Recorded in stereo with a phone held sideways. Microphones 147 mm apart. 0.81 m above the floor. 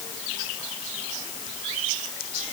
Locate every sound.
Only background noise.